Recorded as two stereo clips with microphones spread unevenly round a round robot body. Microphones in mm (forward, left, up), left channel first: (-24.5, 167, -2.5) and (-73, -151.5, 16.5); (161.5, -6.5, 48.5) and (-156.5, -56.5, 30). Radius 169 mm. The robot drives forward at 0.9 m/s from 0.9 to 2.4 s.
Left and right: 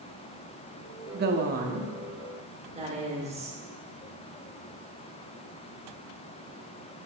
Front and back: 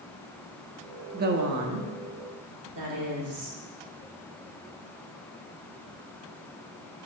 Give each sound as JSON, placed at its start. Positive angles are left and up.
{"t": 1.1, "sound": "a woman speaking", "azimuth_deg": -130, "distance_m": 0.6}